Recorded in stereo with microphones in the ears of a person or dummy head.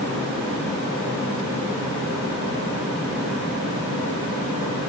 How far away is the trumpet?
No trumpet in this recording.